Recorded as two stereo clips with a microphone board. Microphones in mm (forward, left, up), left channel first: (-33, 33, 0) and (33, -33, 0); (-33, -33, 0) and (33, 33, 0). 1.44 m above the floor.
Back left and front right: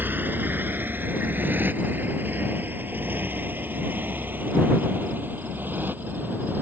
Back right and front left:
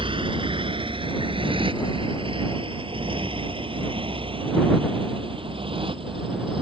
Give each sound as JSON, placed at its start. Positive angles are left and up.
{"t": 0.0, "sound": "a motorcycle", "azimuth_deg": 25}